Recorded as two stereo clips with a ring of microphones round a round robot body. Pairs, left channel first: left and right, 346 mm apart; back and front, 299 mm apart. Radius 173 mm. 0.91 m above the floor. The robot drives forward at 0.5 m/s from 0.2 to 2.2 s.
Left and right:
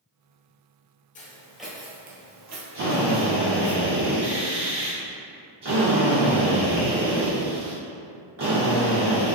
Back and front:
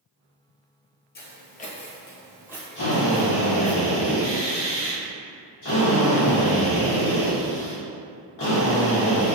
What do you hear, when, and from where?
1.1 s footsteps: 145° left, 1.1 m; by 3.8 s 55° right, 2.5 m
2.8 s a drill: 140° right, 1.9 m